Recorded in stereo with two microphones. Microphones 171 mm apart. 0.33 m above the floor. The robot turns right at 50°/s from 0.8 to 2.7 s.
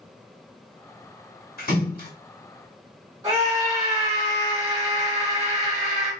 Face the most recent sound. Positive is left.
turn(degrees=-25)  # may be behind; listen again after turning